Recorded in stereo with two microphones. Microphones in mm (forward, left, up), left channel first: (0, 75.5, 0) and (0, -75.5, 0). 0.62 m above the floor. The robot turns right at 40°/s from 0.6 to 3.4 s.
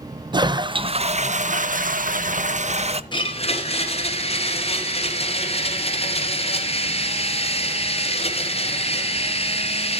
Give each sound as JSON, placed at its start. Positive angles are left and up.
{"t": 0.3, "sound": "a toilet flushing", "azimuth_deg": -145, "distance_m": 0.5}
{"t": 3.1, "sound": "a blender", "side_deg": 30, "distance_m": 1.9}